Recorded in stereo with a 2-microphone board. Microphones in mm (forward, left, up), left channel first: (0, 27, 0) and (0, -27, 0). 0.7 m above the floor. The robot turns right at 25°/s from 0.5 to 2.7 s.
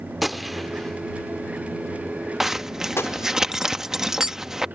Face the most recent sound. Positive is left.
turn(degrees=-10)  # may be behind; listen again after turning